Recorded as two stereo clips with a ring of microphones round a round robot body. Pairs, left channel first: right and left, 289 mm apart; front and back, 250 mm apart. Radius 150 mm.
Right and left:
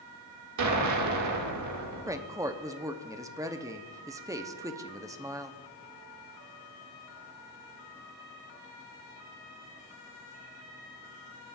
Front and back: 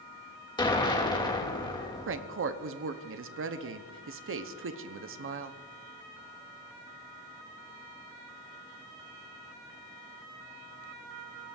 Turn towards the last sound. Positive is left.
turn(degrees=165)